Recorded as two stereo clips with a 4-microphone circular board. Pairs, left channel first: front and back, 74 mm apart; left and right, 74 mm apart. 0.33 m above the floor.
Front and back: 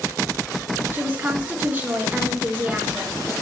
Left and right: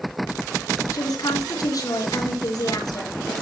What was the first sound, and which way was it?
A woman speaking, 115° left.